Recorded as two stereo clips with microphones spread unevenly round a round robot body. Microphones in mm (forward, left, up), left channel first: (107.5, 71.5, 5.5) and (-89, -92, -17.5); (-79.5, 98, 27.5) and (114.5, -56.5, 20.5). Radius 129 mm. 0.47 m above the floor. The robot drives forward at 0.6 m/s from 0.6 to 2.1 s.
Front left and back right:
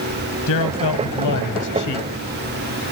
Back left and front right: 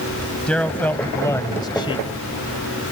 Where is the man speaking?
55° left; by 2.1 s 75° left.